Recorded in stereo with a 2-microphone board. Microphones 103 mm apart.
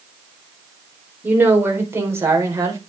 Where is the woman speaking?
20° right (ahead or behind), 3.5 m; by 2.8 s 30° right (ahead or behind), 4 m.